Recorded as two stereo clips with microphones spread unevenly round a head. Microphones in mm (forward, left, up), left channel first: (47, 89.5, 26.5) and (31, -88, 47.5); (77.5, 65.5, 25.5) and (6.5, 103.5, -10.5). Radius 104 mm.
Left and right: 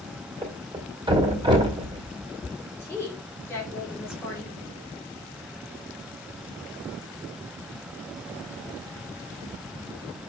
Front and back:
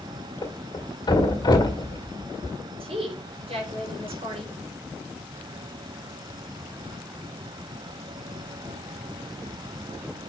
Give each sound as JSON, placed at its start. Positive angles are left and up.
{"t": 0.4, "sound": "a thud", "azimuth_deg": -30, "distance_m": 2.0}
{"t": 2.8, "sound": "a woman speaking", "azimuth_deg": 165, "distance_m": 3.0}